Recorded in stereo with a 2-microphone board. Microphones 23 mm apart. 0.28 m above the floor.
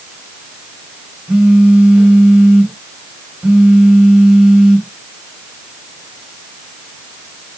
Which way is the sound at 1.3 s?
70° right (ahead or behind).